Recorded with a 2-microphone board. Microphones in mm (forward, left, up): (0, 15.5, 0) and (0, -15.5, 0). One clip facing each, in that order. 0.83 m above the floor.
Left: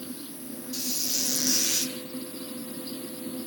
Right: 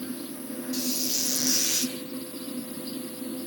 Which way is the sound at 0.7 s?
10° right (ahead or behind).